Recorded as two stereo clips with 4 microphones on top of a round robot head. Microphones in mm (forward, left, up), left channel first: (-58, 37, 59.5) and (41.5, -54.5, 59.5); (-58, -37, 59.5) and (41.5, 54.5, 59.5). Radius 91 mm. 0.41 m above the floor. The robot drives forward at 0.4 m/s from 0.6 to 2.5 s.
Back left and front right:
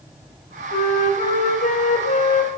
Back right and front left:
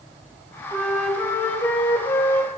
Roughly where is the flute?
Behind left.